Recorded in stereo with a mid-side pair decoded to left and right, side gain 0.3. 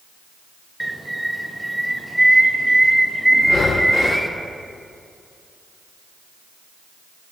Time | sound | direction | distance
0.8 | a bird | 10° right | 0.9 m
3.4 | breathing | 65° left | 0.9 m